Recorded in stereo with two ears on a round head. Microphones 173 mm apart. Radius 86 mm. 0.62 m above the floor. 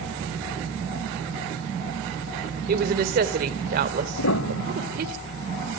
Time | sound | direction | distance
2.7 | a woman speaking | 50° right (ahead or behind) | 2 m
4.2 | a piano | 80° left | 1.0 m